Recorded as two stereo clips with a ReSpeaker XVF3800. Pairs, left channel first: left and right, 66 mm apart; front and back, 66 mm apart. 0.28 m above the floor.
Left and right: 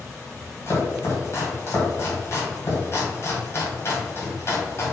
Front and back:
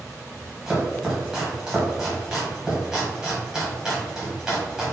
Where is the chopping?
100° left, 1.8 m.